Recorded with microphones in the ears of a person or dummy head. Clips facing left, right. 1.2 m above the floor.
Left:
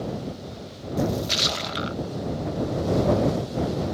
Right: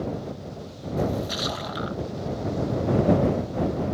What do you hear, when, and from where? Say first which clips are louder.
1.0 s a splash: left 1 dB; 35° left (ahead or behind)